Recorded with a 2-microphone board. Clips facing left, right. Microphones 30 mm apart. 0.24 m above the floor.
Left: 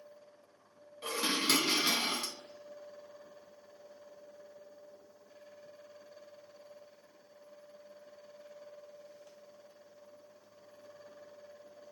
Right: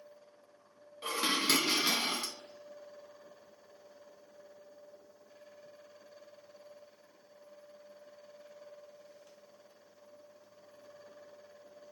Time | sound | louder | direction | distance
1.0 | dishes clattering | right 1 dB | 20° right (ahead or behind) | 1.1 m